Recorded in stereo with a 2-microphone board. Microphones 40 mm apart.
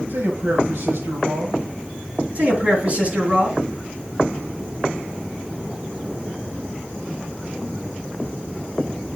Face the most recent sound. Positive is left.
turn(degrees=-35)  # may be behind; listen again after turning